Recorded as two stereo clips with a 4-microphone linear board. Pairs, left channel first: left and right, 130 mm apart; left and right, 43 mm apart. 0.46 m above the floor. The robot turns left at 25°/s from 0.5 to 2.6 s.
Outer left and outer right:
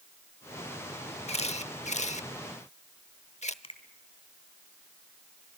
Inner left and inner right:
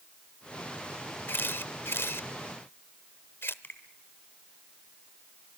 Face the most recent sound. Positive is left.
turn(degrees=45)  # may be behind; listen again after turning